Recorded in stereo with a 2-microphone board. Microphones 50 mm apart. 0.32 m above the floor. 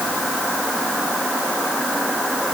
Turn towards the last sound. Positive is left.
No sound to turn to.